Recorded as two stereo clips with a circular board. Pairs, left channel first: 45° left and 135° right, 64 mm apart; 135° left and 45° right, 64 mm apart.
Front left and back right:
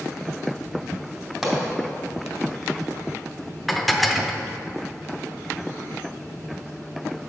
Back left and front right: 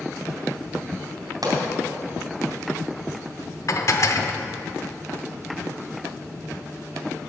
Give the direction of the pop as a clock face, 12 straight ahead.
2 o'clock.